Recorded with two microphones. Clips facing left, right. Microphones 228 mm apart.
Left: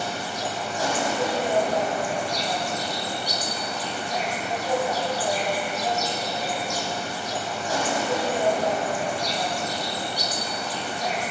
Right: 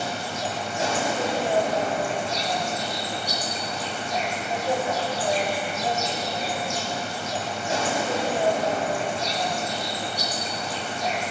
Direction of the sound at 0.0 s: 25° right (ahead or behind).